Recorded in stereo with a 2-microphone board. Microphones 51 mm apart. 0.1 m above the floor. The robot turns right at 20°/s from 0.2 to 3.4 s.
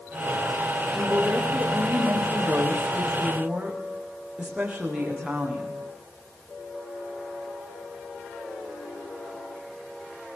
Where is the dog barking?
I don't hear a dog barking.